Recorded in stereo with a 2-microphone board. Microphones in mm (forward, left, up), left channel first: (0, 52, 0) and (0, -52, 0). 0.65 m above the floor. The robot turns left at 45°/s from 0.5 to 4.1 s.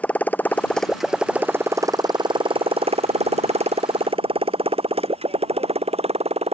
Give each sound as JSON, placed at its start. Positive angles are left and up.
{"t": 0.0, "sound": "a motorcycle", "side_deg": 15}